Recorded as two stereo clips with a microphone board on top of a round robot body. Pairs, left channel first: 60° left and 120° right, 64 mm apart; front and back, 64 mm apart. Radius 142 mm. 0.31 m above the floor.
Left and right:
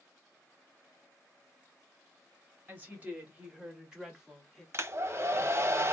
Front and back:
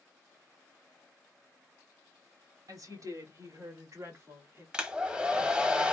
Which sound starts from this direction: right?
A hair dryer, at 4.7 s.